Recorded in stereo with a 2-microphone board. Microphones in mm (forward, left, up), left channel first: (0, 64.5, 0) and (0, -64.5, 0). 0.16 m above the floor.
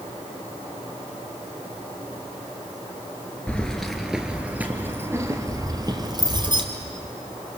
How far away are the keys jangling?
About 2 m.